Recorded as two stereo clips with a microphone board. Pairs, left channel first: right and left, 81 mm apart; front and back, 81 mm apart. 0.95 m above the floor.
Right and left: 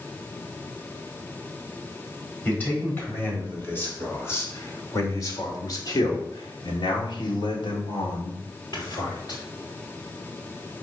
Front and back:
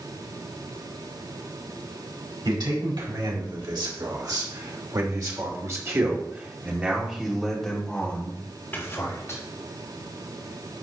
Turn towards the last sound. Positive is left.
turn(degrees=-55)